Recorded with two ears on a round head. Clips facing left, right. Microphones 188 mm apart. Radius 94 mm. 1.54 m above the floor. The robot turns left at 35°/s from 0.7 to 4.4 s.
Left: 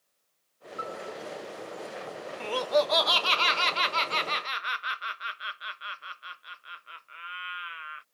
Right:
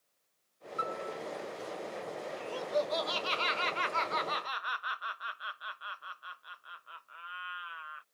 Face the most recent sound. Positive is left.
turn(degrees=30)